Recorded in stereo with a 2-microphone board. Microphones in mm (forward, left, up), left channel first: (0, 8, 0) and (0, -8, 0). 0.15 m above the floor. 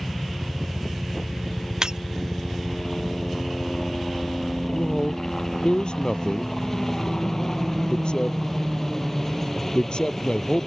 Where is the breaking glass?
40° right (ahead or behind).